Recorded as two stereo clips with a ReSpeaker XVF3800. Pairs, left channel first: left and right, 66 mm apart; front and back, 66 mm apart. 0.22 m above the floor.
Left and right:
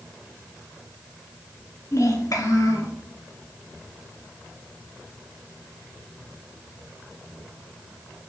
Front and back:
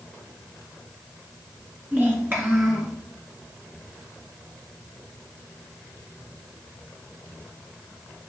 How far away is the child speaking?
About 1.9 m.